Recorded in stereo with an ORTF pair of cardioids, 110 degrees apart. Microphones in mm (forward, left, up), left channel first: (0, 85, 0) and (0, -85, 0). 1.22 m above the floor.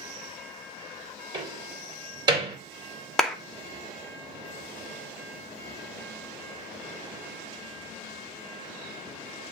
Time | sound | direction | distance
1.3 | a door slam | 30° right | 3 m
3.2 | a clap | 5° left | 1.2 m